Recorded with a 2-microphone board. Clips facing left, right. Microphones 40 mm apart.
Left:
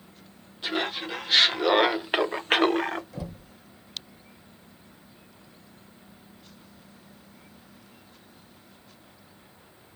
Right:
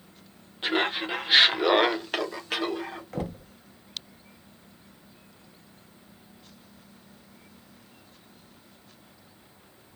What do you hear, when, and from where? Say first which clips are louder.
0.6 s laughter: right 3 dB; 35° right (ahead or behind), 1.3 m; by 3.0 s 75° left (ahead or behind), 0.8 m
3.1 s knocking: right 5 dB; 50° right (ahead or behind), 0.6 m